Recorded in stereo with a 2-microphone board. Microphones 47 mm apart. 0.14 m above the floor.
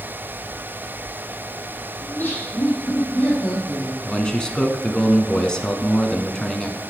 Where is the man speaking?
15° left (ahead or behind), 1.1 m.